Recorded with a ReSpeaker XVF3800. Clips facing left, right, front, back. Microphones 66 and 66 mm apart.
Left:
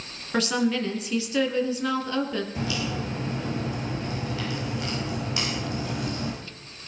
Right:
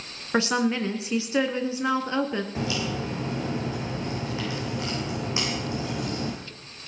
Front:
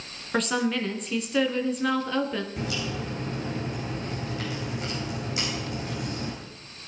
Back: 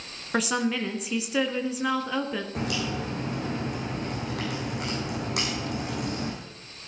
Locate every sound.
0.3 s a woman speaking: 105° right, 1.6 m
2.5 s a crack: 155° right, 7.5 m